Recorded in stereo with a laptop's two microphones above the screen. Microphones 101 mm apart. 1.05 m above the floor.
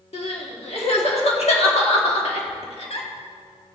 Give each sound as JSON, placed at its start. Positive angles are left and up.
{"t": 0.1, "sound": "crying", "side_deg": 75, "distance_m": 1.6}